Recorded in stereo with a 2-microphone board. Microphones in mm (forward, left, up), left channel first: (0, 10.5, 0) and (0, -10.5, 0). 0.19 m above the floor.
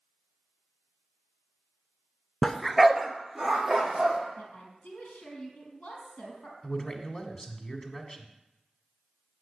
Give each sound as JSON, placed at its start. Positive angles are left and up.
{"t": 2.4, "sound": "a dog barking", "side_deg": 25, "distance_m": 0.5}
{"t": 4.4, "sound": "a woman speaking", "side_deg": 60, "distance_m": 4.0}
{"t": 6.6, "sound": "a man speaking", "side_deg": 30, "distance_m": 1.6}